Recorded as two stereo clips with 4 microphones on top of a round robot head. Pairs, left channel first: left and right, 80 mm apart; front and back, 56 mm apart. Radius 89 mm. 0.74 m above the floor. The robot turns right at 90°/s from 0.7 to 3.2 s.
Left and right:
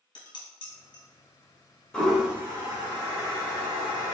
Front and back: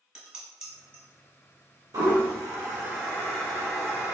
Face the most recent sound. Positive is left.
turn(degrees=-75)